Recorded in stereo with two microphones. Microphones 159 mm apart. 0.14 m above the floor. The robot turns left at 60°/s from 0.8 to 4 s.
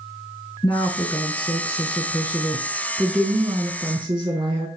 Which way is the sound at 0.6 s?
130° left.